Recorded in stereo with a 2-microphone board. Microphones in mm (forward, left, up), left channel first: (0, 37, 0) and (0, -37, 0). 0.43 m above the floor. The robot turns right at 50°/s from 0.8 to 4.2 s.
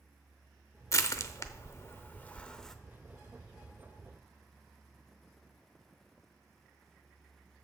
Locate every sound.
0.9 s crushing: 45° left (ahead or behind), 0.6 m; by 2.8 s 5° left (ahead or behind), 0.6 m